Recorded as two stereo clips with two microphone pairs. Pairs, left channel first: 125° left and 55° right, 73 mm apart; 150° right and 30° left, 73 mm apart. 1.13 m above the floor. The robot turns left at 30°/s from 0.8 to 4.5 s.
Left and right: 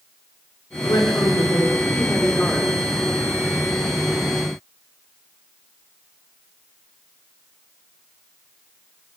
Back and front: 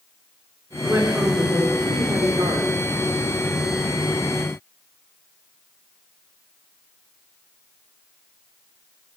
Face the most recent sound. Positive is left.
turn(degrees=-15)